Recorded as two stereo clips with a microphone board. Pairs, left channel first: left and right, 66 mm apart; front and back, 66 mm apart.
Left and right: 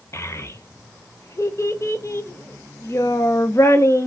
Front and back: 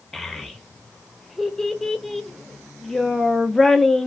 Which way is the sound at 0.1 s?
85° left.